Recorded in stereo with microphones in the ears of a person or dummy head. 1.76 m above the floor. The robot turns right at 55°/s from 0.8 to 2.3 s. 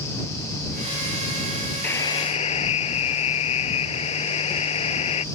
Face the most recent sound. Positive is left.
turn(degrees=30)  # may be behind; listen again after turning